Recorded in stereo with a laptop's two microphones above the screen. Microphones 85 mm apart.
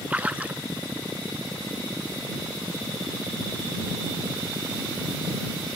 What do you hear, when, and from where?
0.1 s a splash: 15° right (ahead or behind)